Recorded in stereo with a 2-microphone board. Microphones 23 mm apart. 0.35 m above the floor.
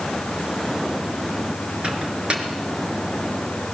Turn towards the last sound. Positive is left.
turn(degrees=-50)  # may be behind; listen again after turning